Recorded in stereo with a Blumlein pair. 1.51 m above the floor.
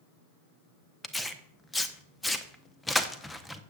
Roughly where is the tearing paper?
Ahead.